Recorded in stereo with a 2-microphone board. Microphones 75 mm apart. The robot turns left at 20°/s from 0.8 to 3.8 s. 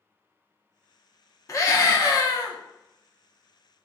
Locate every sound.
1.5 s a scream: 40° left (ahead or behind), 0.8 m; by 2.6 s 50° left (ahead or behind), 0.8 m